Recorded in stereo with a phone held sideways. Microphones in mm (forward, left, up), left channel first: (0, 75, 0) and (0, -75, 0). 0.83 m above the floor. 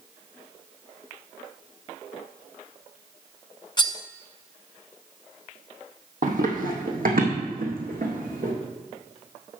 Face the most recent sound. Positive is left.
turn(degrees=-70)  # may be behind; listen again after turning